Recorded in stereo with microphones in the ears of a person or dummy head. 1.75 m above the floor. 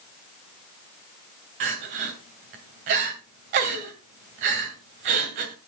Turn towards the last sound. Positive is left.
turn(degrees=-30)  # may be behind; listen again after turning